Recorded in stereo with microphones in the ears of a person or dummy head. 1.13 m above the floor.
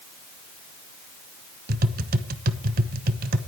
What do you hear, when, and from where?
1.7 s tapping: 45° right (ahead or behind), 1.0 m